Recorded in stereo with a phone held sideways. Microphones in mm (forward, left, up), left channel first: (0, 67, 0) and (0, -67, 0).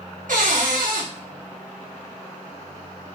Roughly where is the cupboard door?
Right.